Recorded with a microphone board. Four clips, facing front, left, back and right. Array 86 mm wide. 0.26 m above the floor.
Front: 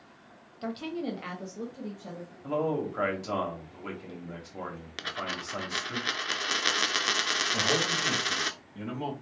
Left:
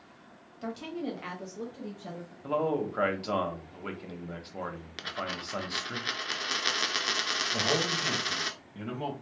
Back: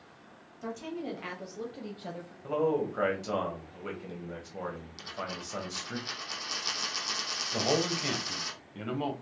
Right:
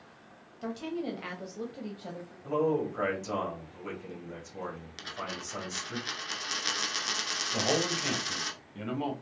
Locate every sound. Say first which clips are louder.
0.6 s a woman speaking: right 1 dB, front 3 dB; straight ahead, 1.0 m; by 2.3 s 160° right, 1.1 m
2.4 s a man speaking: right 1 dB, back 1 dB; 90° left, 1.0 m
5.0 s a dropped coin: left 4 dB, front 5 dB; 20° left, 0.6 m
7.5 s a man speaking: right 1 dB, back 2 dB; 165° right, 0.9 m